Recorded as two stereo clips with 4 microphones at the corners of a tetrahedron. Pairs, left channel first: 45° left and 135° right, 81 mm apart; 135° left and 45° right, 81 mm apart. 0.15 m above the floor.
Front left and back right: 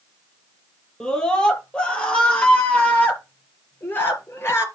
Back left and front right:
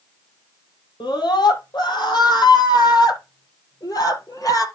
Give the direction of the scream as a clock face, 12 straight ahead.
8 o'clock.